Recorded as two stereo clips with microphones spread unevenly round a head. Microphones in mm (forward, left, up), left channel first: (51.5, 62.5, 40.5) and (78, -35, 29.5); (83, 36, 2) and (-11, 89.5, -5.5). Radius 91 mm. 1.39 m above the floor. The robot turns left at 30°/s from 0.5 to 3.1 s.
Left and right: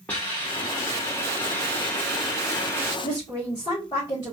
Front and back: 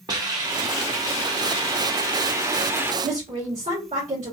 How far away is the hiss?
About 0.9 m.